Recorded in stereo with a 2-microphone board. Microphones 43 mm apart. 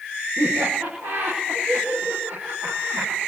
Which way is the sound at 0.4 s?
80° right.